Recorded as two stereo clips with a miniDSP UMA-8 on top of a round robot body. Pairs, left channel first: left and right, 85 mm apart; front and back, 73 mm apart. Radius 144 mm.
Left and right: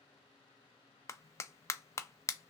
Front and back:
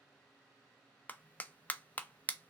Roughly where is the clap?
Ahead left.